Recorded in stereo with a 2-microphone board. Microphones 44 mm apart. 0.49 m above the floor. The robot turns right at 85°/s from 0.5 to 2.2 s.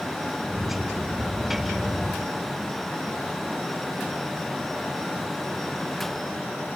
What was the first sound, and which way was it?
Only background noise.